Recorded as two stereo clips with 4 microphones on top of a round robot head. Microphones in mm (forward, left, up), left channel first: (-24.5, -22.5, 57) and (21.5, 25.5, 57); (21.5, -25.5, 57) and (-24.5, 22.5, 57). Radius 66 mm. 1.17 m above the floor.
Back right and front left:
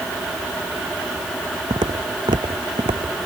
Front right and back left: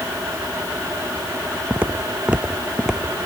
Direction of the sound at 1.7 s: 65° left.